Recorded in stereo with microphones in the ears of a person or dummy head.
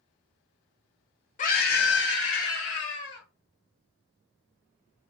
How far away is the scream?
About 0.5 m.